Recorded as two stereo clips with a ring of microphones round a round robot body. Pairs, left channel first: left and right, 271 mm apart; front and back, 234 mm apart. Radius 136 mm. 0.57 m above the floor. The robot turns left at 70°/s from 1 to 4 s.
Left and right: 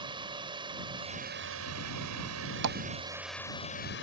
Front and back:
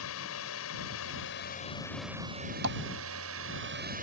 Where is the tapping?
130° right; by 2.8 s 140° right.